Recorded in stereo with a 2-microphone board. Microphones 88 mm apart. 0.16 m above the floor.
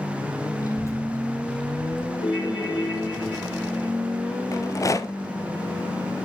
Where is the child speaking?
40° left (ahead or behind), 3 m; by 2.1 s 5° right (ahead or behind), 3 m.